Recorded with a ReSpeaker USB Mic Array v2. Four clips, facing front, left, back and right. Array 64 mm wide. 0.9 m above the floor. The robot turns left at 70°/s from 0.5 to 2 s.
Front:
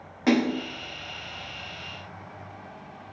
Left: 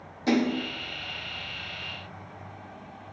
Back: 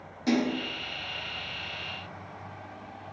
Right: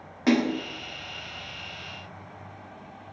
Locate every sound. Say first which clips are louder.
0.3 s a splash: right 1 dB, front 4 dB; 40° right, 2 m; by 0.6 s 50° right, 2 m